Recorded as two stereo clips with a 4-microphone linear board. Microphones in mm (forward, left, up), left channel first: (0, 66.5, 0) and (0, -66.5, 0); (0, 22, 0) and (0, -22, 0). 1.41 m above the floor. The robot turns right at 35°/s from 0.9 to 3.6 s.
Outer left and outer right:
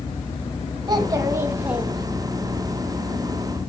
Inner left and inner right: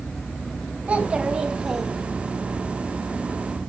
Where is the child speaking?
40° right, 0.9 m; by 2.5 s 15° left, 0.9 m.